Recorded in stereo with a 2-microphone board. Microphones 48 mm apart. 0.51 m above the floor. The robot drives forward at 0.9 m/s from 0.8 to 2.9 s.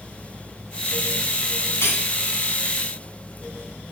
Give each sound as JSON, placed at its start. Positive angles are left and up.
{"t": 1.8, "sound": "cutlery clinking", "side_deg": 80, "distance_m": 3.0}